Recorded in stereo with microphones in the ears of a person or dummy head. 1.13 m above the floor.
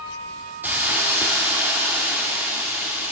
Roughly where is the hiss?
Centre.